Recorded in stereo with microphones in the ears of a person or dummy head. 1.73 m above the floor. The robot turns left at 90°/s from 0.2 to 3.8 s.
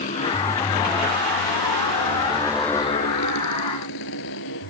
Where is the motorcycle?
45° left (ahead or behind); by 4.7 s 70° left (ahead or behind).